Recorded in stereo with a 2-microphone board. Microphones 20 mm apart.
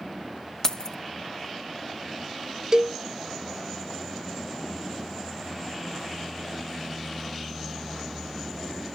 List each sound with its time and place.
0.6 s keys jangling: 25° left (ahead or behind), 0.7 m
2.7 s a cowbell: 40° right (ahead or behind), 0.7 m